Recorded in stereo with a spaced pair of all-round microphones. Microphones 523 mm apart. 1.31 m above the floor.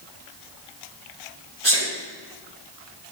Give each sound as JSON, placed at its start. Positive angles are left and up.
{"t": 1.6, "sound": "a sneeze", "side_deg": -55, "distance_m": 1.6}